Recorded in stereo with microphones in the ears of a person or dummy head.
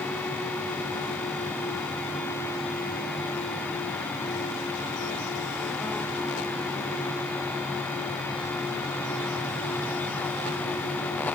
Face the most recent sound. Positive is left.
No sound to turn to.